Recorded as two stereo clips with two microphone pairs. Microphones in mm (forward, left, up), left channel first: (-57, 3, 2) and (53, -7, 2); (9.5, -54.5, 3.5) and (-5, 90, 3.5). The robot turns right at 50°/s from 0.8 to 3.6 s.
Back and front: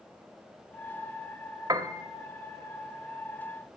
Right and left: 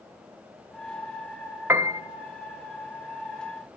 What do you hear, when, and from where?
1.7 s a piano: 30° left, 0.8 m; by 2.0 s 45° left, 0.8 m